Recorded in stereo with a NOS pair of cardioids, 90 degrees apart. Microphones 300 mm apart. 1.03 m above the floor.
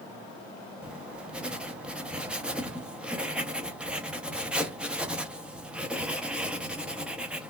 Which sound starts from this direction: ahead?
Writing, at 0.8 s.